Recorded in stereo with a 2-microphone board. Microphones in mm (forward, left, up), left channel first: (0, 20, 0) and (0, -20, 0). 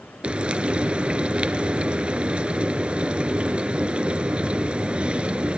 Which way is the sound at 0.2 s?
25° right (ahead or behind).